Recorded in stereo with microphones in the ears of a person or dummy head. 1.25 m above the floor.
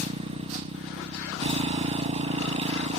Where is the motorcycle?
30° right (ahead or behind).